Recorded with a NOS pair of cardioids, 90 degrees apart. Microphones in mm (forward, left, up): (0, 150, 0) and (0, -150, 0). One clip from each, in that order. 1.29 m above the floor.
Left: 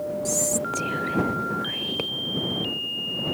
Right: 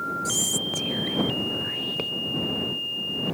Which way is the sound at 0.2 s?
5° left.